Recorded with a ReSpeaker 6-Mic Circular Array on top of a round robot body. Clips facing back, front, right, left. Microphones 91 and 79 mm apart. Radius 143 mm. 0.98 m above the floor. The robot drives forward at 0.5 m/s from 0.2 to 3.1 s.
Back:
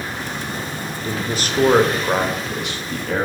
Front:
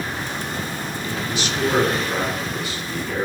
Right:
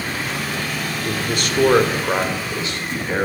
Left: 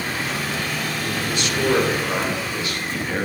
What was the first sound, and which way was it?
A man speaking, 125° right.